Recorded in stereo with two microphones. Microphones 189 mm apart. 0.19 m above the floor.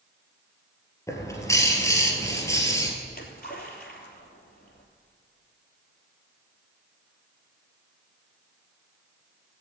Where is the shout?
I don't hear a shout.